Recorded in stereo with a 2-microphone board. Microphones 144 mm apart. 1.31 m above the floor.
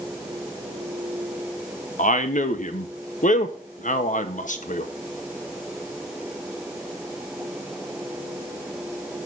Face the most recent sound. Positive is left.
turn(degrees=60)  # may be behind; listen again after turning